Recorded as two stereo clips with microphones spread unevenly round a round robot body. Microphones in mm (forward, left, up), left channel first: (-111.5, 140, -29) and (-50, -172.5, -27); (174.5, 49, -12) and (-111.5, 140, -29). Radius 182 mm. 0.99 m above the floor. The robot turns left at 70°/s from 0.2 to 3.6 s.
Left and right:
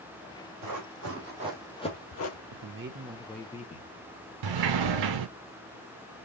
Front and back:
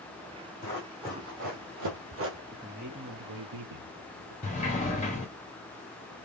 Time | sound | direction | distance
0.6 | running footsteps | 75° right | 2.5 m
2.5 | a man speaking | 115° right | 1.1 m
4.4 | a sliding door | 90° right | 0.7 m